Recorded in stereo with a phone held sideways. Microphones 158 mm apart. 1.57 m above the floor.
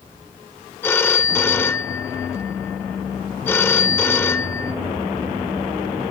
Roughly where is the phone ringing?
Centre.